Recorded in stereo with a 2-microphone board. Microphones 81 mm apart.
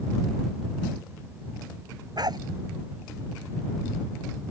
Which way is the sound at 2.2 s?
60° right (ahead or behind).